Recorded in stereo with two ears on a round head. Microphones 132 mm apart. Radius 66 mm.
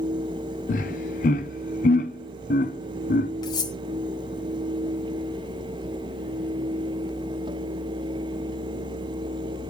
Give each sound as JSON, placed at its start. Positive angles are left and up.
{"t": 0.7, "sound": "laughter", "side_deg": 55, "distance_m": 0.6}
{"t": 3.4, "sound": "cutlery clinking", "side_deg": 30, "distance_m": 0.9}